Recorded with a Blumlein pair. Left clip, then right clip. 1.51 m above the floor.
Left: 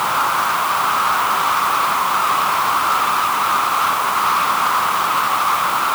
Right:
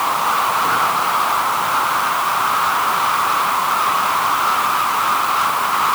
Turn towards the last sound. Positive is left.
No sound to turn to.